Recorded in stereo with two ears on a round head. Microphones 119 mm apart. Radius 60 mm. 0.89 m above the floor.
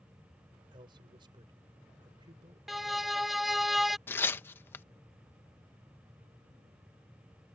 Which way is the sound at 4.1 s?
15° left (ahead or behind).